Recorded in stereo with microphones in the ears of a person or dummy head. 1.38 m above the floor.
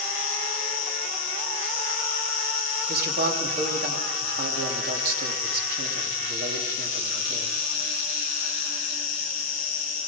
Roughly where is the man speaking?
Right.